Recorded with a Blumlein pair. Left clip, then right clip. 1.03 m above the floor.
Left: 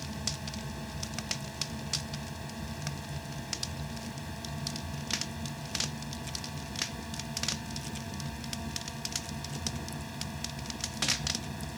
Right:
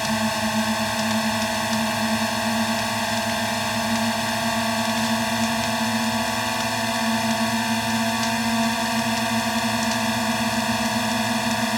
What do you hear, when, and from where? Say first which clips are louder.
0.0 s a drone: right 16 dB; 40° right